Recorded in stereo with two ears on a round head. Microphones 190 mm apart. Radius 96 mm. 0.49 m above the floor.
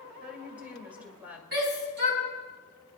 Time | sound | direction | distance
0.2 | a woman speaking | 5° right (ahead or behind) | 2.0 m
1.5 | a shout | 50° right (ahead or behind) | 4.5 m